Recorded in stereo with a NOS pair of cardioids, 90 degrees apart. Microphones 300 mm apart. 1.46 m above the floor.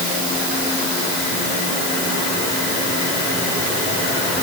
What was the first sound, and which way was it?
Only background noise.